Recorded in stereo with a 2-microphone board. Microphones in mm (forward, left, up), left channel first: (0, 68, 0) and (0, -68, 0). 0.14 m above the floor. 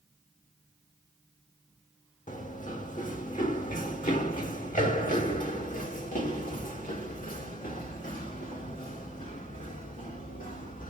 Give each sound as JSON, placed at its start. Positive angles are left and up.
{"t": 2.3, "sound": "running footsteps", "side_deg": 70, "distance_m": 3.5}